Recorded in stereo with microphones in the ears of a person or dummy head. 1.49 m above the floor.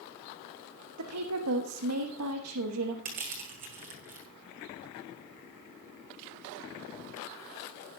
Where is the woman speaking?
85° right, 1.3 m.